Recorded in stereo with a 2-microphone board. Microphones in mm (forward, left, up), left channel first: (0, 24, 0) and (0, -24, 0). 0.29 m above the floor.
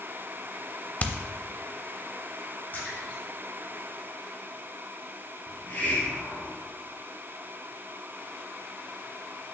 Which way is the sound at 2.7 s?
45° left (ahead or behind).